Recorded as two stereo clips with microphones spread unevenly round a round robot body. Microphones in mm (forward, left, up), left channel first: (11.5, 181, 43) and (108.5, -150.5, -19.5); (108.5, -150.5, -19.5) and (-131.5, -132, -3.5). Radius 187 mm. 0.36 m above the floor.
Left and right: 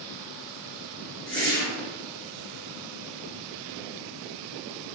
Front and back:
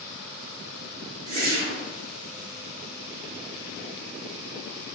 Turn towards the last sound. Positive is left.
turn(degrees=-155)